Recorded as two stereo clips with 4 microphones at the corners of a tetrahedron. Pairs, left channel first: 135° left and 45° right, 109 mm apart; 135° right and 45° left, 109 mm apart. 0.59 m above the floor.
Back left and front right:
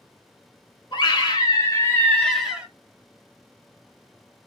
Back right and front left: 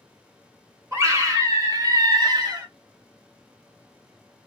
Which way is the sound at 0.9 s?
100° left.